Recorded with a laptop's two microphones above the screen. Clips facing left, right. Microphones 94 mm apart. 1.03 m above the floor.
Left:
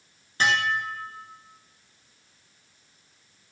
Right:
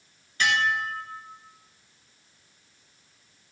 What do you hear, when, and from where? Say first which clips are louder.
0.4 s dishes clattering: even; 35° left (ahead or behind), 1.5 m